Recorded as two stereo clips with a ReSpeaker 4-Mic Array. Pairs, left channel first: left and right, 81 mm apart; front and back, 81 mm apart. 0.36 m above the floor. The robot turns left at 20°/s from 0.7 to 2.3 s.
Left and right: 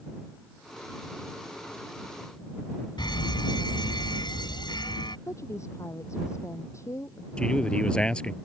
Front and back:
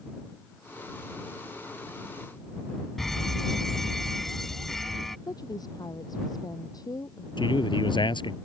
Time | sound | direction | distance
3.0 | a fire alarm | 85° left | ?
5.3 | a woman speaking | 40° left | ?
7.4 | a man speaking | 10° left | ?